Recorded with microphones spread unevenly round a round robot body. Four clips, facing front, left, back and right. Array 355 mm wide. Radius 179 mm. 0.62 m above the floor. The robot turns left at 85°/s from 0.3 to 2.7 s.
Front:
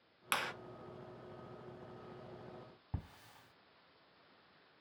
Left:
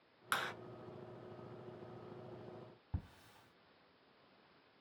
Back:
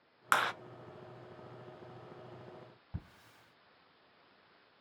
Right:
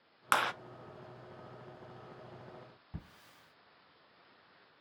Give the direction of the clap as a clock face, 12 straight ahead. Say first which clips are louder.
Right 10 dB, back 9 dB; 4 o'clock.